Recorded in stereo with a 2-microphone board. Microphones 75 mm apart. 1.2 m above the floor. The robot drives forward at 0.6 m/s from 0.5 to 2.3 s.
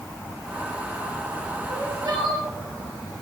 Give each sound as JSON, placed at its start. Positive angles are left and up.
{"t": 1.7, "sound": "crying", "side_deg": -45, "distance_m": 4.0}